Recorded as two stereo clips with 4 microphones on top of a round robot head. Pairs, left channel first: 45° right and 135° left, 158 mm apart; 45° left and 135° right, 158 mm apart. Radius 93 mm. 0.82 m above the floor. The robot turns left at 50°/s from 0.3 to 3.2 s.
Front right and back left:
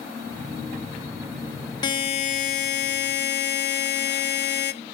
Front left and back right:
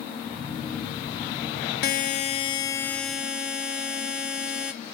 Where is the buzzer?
20° left, 1.4 m; by 4.7 s 50° right, 1.4 m.